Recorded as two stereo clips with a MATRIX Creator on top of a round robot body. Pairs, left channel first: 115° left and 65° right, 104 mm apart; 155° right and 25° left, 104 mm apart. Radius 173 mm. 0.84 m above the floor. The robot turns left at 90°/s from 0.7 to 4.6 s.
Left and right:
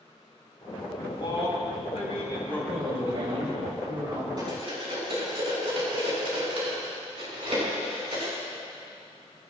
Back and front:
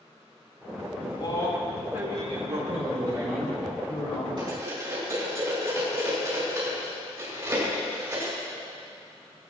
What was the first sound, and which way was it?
A man speaking, 175° right.